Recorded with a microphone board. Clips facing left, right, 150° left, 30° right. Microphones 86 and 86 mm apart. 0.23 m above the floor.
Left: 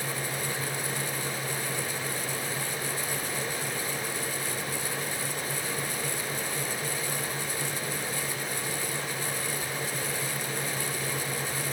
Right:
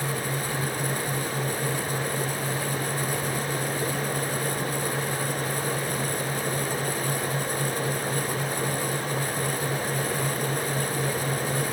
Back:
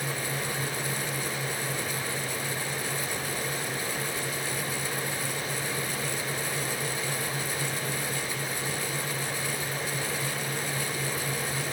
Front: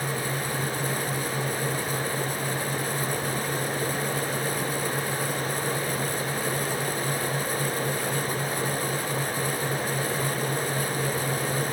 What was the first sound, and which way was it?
Only background noise.